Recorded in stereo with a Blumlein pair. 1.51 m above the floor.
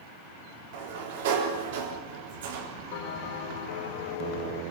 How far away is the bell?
About 3.5 m.